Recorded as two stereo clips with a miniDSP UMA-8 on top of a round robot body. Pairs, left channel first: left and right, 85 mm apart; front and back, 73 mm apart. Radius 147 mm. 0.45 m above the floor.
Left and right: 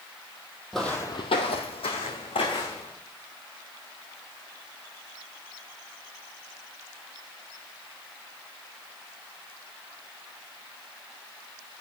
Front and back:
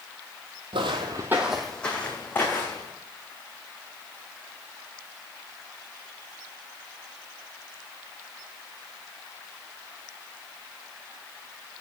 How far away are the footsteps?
About 0.9 m.